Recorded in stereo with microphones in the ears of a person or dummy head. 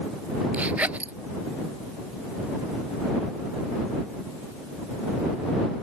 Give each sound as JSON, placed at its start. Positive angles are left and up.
{"t": 0.5, "sound": "a zipper", "side_deg": -10}